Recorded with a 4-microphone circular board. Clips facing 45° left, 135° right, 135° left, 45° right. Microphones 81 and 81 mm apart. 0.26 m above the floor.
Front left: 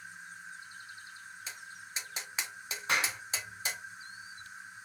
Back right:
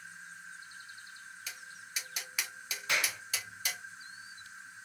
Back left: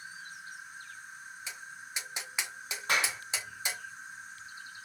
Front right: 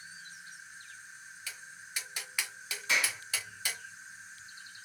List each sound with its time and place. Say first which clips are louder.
0.0 s an insect: front left 1 dB, back left 4 dB; 115° left, 3 m
1.5 s tapping: front left 1 dB, back left 1 dB; 80° left, 1.1 m
2.9 s a clap: front left 2 dB, back left 2 dB; 95° left, 2.5 m